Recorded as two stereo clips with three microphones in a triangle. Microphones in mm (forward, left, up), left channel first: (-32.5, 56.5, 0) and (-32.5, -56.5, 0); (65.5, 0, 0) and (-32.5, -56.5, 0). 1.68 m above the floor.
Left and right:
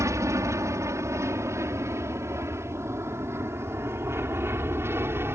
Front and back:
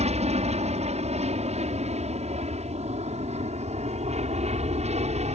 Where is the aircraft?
150° right; by 5.4 s 160° right.